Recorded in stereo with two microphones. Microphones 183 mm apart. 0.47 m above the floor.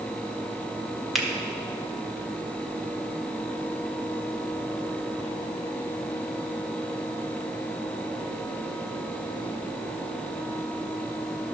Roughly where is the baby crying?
I don't hear a baby crying.